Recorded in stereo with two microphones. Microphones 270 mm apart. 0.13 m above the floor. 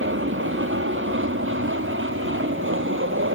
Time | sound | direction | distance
0.0 | an aircraft | 50° right (ahead or behind) | ?